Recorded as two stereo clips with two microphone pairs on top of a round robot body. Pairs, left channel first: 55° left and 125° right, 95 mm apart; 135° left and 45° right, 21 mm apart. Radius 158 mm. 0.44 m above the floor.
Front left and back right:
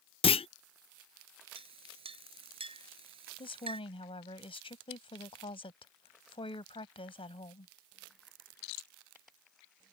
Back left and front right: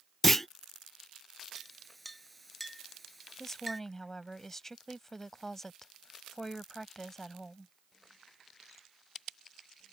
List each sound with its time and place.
0.2 s a clunk: 55° left
1.6 s a clink: 140° right
3.4 s a woman speaking: 60° left